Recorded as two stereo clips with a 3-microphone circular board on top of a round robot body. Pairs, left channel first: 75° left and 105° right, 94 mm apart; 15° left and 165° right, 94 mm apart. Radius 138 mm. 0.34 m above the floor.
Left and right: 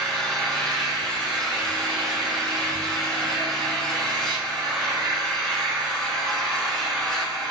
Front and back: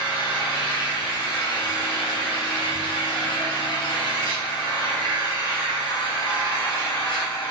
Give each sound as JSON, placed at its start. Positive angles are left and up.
{"t": 0.0, "sound": "an engine running", "azimuth_deg": -5, "distance_m": 2.5}